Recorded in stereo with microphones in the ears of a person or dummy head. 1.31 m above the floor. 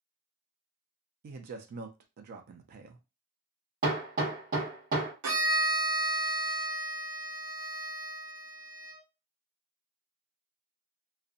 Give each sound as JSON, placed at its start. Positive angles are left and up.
{"t": 1.2, "sound": "a man speaking", "side_deg": -50, "distance_m": 0.5}
{"t": 3.8, "sound": "hammering", "side_deg": -45, "distance_m": 1.5}
{"t": 5.2, "sound": "a violin", "side_deg": -80, "distance_m": 0.9}